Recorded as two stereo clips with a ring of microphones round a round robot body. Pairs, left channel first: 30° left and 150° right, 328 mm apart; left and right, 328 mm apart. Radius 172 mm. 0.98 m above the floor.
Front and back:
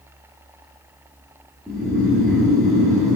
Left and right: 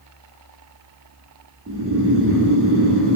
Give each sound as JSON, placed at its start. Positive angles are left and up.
{"t": 1.7, "sound": "snoring", "azimuth_deg": -55, "distance_m": 0.5}